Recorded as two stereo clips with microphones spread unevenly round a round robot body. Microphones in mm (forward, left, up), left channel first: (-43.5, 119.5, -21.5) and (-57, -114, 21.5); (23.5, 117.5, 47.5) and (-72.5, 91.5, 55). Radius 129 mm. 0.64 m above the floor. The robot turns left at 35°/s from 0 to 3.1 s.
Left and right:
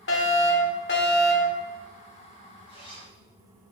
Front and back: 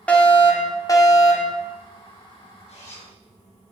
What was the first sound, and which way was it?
A fire alarm, 90° left.